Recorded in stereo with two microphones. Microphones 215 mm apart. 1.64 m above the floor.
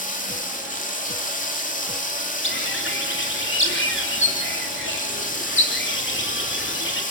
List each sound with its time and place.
0.0 s running water: 35° left (ahead or behind), 2.5 m
2.4 s a bird: 65° left (ahead or behind), 3.5 m